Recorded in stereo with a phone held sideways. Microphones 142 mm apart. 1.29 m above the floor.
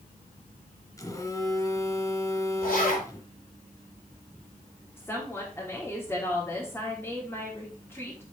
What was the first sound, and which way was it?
A phone buzzing, 25° left (ahead or behind).